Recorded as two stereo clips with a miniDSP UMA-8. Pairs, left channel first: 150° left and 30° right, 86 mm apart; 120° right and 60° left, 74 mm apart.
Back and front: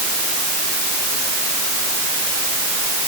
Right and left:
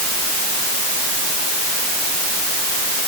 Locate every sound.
Only background noise.